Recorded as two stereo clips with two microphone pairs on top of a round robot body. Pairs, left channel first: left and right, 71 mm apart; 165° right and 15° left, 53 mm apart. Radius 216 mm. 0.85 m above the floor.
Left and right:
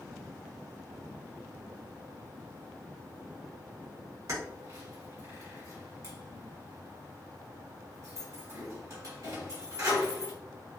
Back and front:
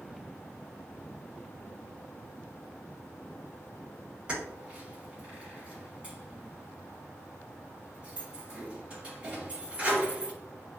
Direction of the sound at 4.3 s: 55° right.